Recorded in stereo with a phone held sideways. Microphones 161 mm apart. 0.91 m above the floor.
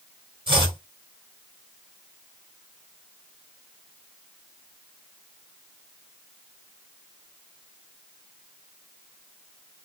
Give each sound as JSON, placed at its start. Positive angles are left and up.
{"t": 0.5, "sound": "chopping", "side_deg": -30, "distance_m": 3.0}